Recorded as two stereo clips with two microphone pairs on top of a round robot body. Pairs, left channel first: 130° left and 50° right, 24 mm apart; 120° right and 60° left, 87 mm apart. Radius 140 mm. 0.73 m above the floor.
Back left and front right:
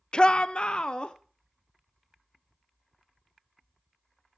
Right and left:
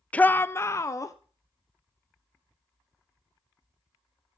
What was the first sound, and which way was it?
A shout, 160° left.